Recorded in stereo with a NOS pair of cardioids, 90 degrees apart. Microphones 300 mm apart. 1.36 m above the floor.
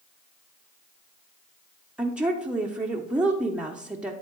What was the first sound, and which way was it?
A woman speaking, 5° right.